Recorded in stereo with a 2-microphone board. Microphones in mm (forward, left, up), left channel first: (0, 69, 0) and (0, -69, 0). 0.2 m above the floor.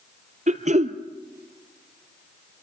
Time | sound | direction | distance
0.5 | throat clearing | 65° right (ahead or behind) | 1.3 m